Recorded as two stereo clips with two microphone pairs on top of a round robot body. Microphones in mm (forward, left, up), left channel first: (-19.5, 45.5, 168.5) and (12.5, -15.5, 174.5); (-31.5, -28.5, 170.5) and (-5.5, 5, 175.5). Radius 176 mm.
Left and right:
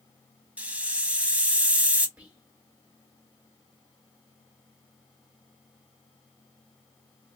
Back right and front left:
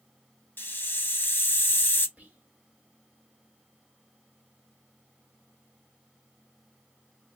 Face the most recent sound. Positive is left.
turn(degrees=10)